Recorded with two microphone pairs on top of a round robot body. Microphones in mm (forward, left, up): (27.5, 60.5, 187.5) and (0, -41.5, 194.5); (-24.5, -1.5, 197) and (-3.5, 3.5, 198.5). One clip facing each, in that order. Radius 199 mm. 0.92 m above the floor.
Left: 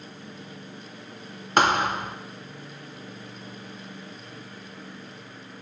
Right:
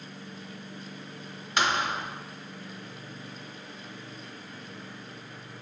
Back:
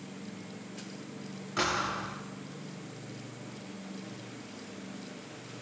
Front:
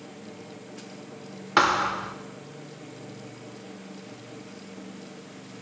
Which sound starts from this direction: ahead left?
A thud, at 1.6 s.